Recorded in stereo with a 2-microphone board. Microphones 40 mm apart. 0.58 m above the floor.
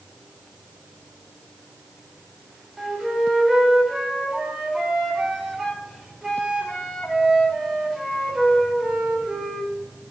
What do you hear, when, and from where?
2.8 s a flute: 15° right (ahead or behind), 2 m